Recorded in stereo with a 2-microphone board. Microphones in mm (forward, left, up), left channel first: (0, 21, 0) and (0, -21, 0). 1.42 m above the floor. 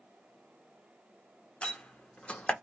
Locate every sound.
1.6 s a door slam: 30° left (ahead or behind), 0.7 m